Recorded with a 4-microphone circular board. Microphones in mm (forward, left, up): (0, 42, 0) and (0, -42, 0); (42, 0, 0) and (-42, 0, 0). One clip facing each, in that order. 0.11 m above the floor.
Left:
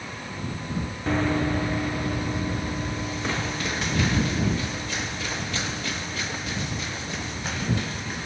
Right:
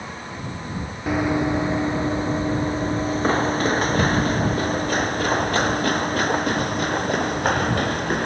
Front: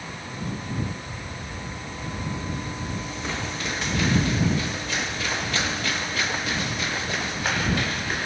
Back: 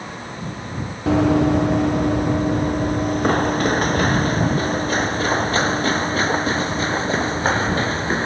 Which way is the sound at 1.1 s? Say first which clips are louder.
Right 3 dB, back 21 dB; 170° right.